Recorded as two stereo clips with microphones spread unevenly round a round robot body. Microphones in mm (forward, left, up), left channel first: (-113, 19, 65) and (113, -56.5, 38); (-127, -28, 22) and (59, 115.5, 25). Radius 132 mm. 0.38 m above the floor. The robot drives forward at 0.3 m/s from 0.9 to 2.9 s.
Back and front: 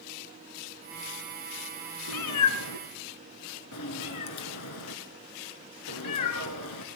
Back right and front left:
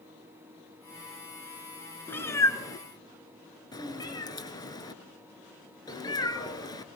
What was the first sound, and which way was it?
A cat meowing, 135° left.